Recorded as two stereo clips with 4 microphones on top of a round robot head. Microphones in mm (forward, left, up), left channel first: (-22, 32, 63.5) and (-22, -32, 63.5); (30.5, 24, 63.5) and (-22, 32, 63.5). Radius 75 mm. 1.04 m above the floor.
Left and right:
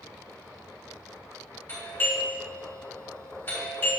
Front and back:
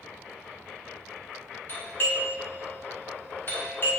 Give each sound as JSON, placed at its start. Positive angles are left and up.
{"t": 1.7, "sound": "a doorbell", "azimuth_deg": 30, "distance_m": 3.5}